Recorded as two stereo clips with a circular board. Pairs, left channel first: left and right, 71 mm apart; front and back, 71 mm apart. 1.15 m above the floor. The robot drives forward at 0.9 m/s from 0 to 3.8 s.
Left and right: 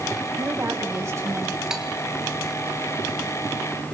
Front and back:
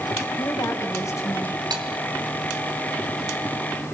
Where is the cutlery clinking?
170° right, 2 m.